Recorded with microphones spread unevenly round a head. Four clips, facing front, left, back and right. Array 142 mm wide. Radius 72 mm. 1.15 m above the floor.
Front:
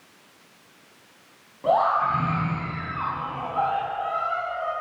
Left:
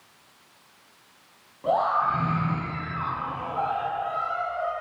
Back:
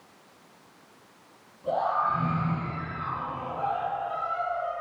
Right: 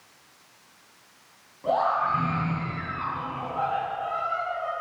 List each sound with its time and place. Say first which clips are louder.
1.6 s a scream: left 1 dB, front 5 dB; 10° left, 9 m